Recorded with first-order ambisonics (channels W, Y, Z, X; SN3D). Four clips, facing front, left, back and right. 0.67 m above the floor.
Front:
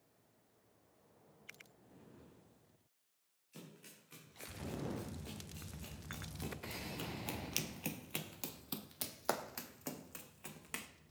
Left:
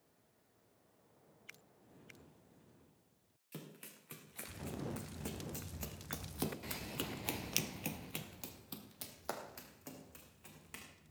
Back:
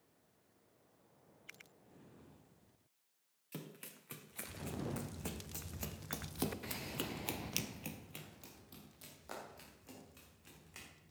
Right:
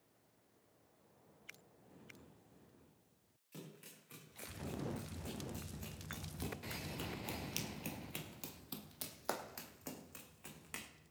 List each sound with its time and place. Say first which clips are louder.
3.5 s running footsteps: left 2 dB, back 5 dB; 150° left, 3 m; by 10.9 s 15° right, 2.5 m